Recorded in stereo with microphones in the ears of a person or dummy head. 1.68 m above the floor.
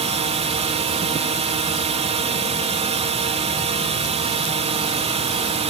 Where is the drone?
35° right (ahead or behind).